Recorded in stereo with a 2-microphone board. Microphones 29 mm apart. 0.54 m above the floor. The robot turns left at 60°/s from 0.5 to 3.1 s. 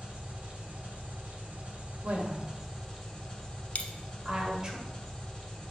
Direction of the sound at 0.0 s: 40° right.